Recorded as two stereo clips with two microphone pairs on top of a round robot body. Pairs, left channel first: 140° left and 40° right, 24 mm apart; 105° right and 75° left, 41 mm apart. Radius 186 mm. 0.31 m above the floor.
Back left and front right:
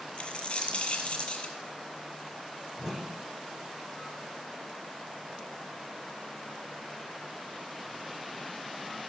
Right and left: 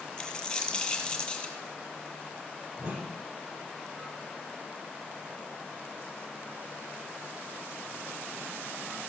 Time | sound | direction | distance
0.2 | a dropped coin | 175° right | 1.9 m
2.8 | a whoosh | 40° left | 8.5 m